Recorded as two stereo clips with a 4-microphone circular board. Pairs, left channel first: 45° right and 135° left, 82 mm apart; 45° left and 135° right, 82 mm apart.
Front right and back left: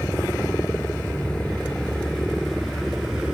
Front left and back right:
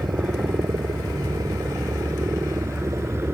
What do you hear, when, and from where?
0.0 s a helicopter: 110° right; by 3.4 s 150° right